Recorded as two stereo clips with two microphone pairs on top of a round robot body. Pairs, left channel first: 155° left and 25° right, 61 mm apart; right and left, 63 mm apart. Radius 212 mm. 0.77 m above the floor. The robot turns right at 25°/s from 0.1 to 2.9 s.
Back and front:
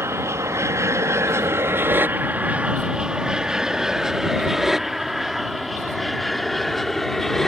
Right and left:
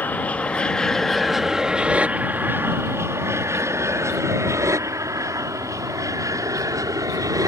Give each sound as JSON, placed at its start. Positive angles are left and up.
{"t": 0.0, "sound": "an aircraft", "azimuth_deg": -45}